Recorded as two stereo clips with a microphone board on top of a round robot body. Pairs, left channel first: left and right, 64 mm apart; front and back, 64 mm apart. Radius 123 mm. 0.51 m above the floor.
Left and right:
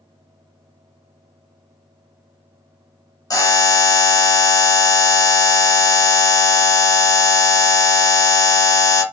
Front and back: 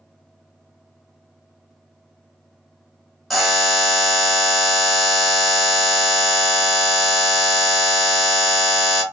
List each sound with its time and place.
3.3 s a buzzer: 90° left, 0.9 m